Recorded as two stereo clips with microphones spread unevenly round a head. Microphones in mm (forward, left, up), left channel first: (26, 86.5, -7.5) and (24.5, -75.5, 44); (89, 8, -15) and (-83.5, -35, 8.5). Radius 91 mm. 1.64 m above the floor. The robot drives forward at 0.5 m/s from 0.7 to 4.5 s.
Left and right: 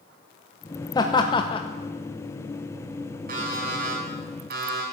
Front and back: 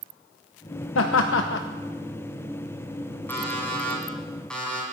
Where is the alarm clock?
65° right, 5 m; by 4.8 s 75° right, 5 m.